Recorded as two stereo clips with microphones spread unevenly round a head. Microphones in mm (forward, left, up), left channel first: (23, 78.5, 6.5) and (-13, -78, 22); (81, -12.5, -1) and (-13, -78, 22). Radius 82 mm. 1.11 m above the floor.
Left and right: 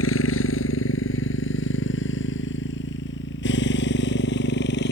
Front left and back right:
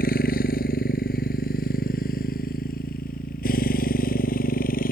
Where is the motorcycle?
70° left; by 4.9 s 50° left.